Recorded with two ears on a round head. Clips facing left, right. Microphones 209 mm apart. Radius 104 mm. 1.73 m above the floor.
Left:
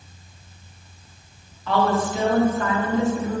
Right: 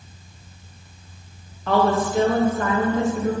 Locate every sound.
1.7 s a woman speaking: 40° right (ahead or behind), 2.5 m